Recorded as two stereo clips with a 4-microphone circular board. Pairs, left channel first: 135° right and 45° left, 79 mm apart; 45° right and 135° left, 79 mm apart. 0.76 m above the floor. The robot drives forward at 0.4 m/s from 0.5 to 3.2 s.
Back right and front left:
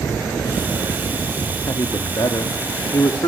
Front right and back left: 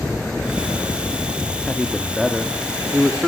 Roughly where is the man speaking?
Behind right.